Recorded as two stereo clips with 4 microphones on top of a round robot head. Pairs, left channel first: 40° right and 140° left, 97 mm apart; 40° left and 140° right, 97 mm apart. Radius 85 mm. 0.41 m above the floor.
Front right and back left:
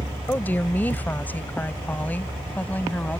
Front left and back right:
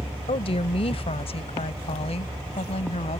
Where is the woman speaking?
30° left.